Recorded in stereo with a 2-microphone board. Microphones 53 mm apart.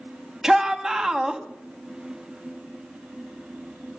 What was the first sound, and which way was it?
A shout, 10° right (ahead or behind).